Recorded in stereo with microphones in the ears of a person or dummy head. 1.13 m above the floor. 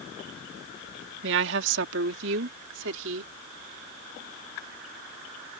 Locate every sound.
1.2 s a woman speaking: 65° right (ahead or behind); by 3.3 s 70° right (ahead or behind)